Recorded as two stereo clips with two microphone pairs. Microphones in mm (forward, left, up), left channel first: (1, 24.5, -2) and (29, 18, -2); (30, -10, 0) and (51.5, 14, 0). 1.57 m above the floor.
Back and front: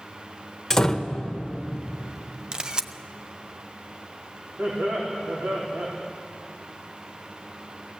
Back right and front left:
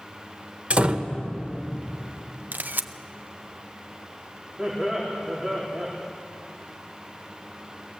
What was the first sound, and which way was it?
A door slam, 90° left.